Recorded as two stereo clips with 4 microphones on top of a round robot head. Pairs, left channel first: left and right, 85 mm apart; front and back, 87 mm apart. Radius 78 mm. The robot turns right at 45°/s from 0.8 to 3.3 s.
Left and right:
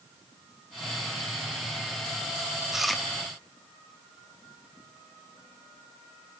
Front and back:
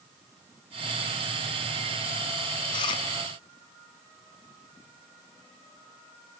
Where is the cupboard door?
I don't hear a cupboard door.